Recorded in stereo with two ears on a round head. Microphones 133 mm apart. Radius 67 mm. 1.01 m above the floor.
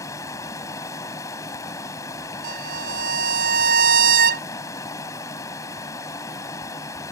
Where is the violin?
65° right (ahead or behind).